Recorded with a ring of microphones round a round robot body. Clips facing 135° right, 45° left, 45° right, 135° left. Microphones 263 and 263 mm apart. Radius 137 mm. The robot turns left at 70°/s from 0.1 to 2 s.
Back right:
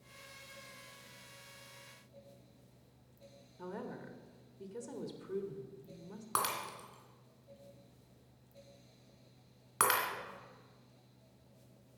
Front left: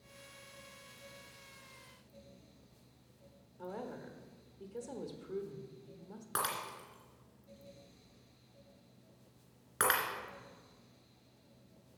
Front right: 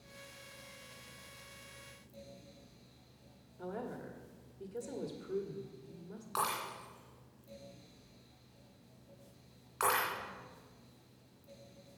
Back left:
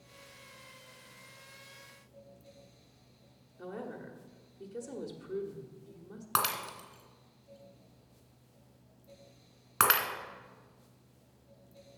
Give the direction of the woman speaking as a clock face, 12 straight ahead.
5 o'clock.